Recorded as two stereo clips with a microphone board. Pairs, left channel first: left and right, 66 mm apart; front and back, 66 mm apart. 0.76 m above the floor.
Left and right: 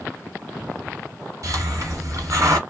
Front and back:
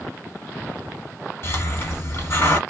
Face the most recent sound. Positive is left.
turn(degrees=-50)